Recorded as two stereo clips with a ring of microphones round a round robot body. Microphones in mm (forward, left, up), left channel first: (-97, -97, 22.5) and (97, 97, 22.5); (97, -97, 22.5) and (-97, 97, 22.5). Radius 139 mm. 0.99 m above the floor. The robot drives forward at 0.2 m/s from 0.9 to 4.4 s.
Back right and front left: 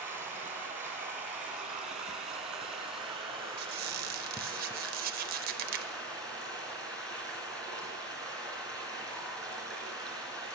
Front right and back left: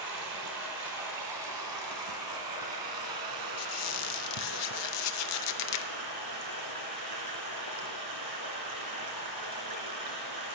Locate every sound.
0.0 s running water: 130° left, 2.5 m; by 10.6 s 140° left, 3 m
3.6 s a squeak: 10° right, 0.7 m; by 5.9 s 15° right, 0.6 m